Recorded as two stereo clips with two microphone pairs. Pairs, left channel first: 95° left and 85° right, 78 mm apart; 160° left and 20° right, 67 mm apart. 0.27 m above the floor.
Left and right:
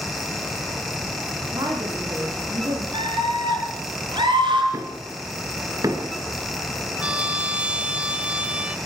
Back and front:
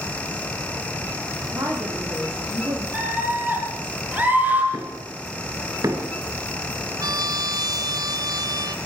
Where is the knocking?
40° right, 3 m.